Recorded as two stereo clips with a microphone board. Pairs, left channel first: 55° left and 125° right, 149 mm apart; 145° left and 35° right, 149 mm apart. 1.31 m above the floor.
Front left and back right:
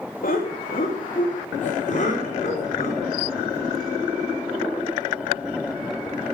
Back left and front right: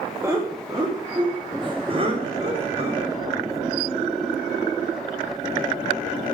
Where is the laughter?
40° left, 2 m; by 3.1 s 10° left, 5 m.